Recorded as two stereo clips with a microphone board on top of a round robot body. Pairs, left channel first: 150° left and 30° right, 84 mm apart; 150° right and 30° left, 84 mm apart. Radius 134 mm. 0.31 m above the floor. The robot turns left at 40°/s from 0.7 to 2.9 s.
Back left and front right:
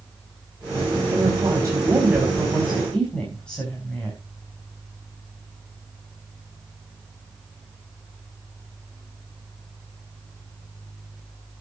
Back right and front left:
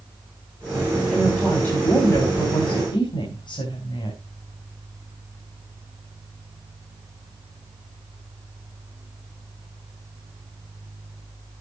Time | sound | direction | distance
1.1 | a woman speaking | 60° right | 4 m